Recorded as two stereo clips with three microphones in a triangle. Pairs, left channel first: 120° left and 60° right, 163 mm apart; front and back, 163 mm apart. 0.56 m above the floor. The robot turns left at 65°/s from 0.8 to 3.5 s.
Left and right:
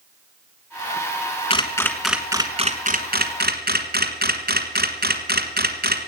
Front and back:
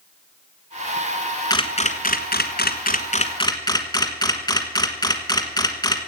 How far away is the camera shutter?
About 1.4 m.